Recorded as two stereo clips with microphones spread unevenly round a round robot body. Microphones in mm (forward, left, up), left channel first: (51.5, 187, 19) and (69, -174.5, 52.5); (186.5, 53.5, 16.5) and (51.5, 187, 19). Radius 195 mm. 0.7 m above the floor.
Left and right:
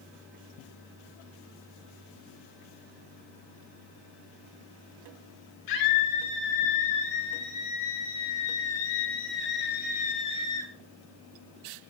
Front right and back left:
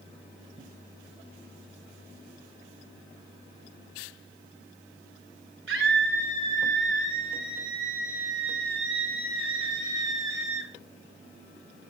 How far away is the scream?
About 8.5 m.